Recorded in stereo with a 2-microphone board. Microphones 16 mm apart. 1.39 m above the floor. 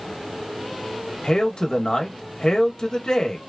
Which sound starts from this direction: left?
A man speaking, at 1.2 s.